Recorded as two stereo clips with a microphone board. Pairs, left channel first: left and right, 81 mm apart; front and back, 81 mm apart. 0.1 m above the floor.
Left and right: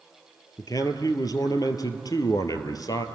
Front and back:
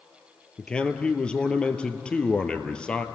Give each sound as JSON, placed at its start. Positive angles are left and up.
{"t": 0.6, "sound": "a man speaking", "azimuth_deg": 75, "distance_m": 1.7}